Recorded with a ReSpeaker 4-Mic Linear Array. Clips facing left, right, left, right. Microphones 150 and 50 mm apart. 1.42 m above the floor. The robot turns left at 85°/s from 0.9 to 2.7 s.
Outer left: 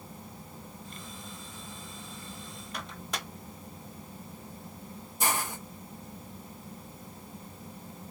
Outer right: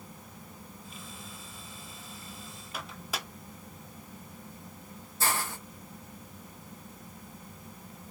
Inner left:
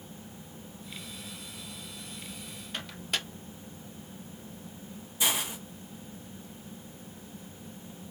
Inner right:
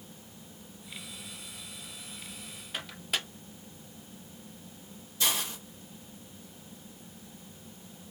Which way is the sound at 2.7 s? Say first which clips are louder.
Even, even; 5° right (ahead or behind).